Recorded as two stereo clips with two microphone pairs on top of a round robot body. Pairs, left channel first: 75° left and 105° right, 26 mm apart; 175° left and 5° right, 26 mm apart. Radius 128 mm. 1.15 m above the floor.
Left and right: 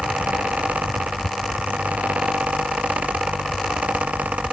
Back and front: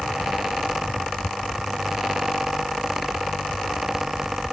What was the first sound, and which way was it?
Only background noise.